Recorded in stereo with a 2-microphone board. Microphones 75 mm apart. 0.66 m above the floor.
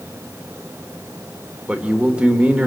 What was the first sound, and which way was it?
A man speaking, 15° right (ahead or behind).